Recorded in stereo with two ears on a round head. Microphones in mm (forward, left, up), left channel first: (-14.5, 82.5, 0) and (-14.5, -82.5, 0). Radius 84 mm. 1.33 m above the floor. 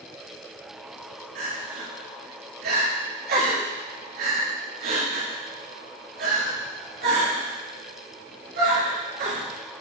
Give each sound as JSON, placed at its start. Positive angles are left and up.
{"t": 1.4, "sound": "crying", "side_deg": -60, "distance_m": 2.5}